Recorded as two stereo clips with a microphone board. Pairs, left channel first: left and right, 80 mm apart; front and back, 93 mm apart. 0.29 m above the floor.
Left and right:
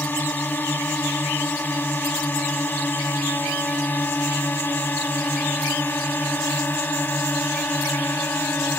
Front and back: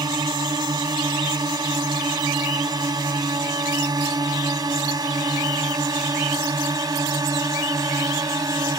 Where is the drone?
150° left.